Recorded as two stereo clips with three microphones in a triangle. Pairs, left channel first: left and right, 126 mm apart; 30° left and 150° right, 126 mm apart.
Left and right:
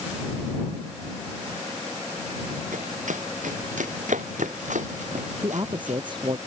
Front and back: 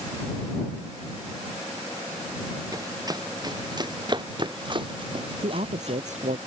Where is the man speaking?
140° right.